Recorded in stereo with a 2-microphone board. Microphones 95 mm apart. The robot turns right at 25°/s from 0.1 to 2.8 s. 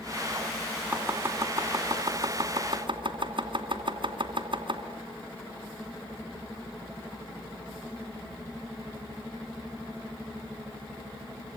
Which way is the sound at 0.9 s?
20° right (ahead or behind).